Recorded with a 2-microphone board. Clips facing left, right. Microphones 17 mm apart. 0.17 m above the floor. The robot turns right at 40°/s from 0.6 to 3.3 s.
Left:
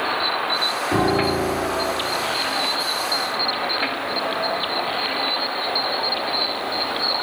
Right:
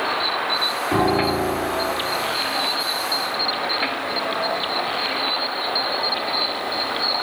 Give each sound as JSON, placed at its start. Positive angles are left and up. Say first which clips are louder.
{"t": 0.9, "sound": "a piano", "louder": "right 1 dB", "azimuth_deg": 5, "distance_m": 2.5}